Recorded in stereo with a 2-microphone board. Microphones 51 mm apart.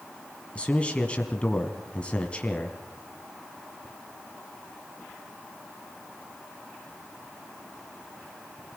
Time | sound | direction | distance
0.6 | a man speaking | 25° left (ahead or behind) | 1.6 m